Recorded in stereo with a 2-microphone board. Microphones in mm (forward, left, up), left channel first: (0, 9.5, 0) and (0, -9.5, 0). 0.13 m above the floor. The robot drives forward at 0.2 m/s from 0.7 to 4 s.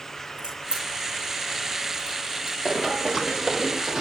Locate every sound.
0.4 s a crack: 55° right (ahead or behind), 7 m; by 2.5 s 50° right (ahead or behind), 7 m
2.6 s running footsteps: 25° right (ahead or behind), 2 m; by 4.0 s 45° right (ahead or behind), 3 m